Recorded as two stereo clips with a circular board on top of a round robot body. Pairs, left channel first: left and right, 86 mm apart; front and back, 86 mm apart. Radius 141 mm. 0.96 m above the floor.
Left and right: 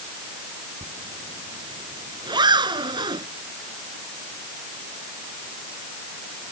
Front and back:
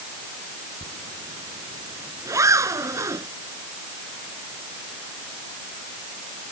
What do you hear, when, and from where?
0.8 s a zipper: 125° right